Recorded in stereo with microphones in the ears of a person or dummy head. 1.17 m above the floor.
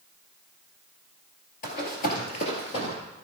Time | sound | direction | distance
1.6 | running footsteps | 50° left (ahead or behind) | 1.6 m